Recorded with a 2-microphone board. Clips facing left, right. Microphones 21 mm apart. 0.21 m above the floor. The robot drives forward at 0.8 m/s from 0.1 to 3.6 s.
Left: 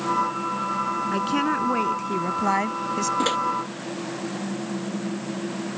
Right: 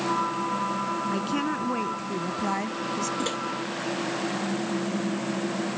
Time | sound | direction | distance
1.1 | a woman speaking | 15° left (ahead or behind) | ?
3.2 | a microwave | 25° left (ahead or behind) | ?